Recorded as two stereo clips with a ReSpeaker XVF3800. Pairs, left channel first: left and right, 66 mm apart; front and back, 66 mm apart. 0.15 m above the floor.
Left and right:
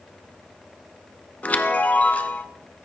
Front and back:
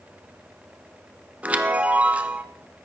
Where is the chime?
135° left, 0.7 m.